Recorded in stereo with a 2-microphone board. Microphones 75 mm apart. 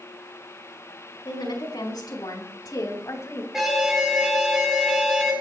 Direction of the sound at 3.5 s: 5° right (ahead or behind).